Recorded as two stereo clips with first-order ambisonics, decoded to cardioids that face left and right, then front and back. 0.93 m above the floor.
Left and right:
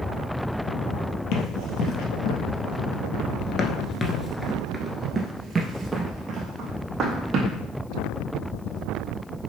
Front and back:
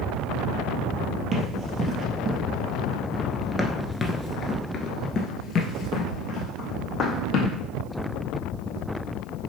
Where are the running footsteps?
115° left, 1.7 m; by 7.6 s 40° right, 2 m.